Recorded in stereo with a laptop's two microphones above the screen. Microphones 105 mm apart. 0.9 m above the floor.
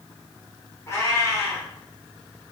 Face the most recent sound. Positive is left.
turn(degrees=30)  # may be behind; listen again after turning